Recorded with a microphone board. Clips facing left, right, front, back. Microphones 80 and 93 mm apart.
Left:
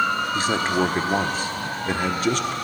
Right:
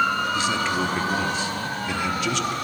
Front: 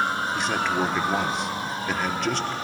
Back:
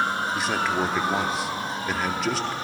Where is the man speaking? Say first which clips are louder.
Left 2 dB, even; 90° left, 0.9 m.